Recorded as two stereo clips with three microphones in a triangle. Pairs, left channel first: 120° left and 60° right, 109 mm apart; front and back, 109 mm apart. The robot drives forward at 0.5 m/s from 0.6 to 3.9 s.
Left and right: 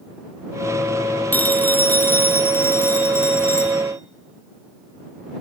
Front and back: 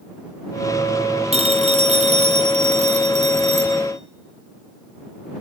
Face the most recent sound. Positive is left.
turn(degrees=-175)